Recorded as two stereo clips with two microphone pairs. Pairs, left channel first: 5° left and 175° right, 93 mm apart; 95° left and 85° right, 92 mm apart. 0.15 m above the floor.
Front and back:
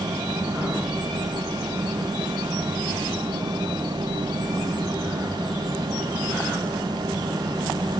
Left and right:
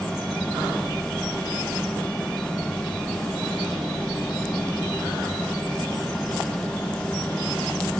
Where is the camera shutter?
No camera shutter in this recording.